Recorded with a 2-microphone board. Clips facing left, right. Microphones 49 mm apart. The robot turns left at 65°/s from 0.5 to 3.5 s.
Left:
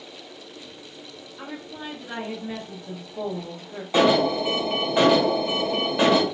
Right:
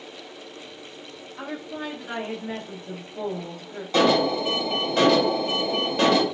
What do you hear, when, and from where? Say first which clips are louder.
1.4 s a woman speaking: right 4 dB; 75° right, 0.9 m; by 3.8 s 145° left, 0.9 m
3.9 s an alarm: left 1 dB; 15° left (ahead or behind), 0.7 m